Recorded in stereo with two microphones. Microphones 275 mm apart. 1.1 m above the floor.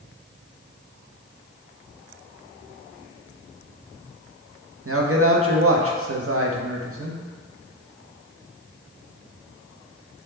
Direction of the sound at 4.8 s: 55° right (ahead or behind).